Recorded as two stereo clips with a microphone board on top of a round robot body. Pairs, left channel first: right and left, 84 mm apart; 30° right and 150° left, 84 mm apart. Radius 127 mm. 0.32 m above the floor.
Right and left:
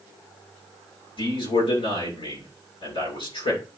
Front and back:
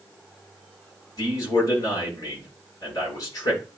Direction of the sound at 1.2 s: 80° right.